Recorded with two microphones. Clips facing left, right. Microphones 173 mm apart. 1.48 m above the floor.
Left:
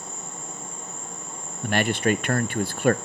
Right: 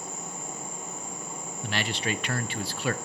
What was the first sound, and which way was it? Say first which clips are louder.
An insect: right 1 dB; 25° left (ahead or behind).